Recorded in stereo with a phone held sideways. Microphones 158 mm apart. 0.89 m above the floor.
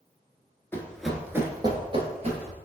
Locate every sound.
0.7 s running footsteps: 15° left (ahead or behind), 0.8 m; by 2.5 s 50° right (ahead or behind), 1.3 m